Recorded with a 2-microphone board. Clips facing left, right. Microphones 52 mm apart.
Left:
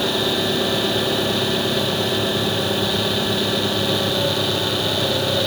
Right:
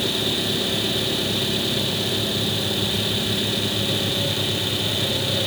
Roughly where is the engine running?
Left.